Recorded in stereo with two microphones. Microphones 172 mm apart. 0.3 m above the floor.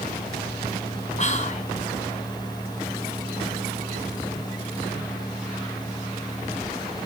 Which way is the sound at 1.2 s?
45° left (ahead or behind).